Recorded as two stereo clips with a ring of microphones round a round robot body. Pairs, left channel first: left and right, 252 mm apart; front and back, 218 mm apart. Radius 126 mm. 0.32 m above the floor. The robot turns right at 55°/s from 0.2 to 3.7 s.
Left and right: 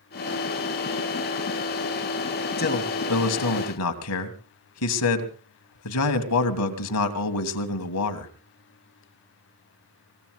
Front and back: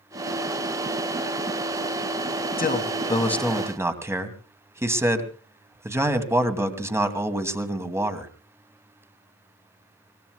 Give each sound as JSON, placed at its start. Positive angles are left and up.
{"t": 2.6, "sound": "a man speaking", "azimuth_deg": 40, "distance_m": 2.5}